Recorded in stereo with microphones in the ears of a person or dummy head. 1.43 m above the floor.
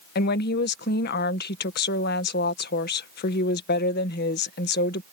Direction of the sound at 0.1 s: 50° left (ahead or behind).